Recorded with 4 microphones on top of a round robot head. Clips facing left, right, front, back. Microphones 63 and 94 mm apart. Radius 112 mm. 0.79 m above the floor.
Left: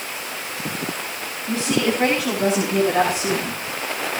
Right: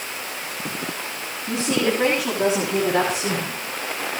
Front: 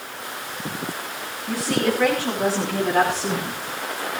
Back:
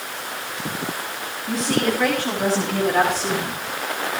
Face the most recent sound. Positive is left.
turn(degrees=-75)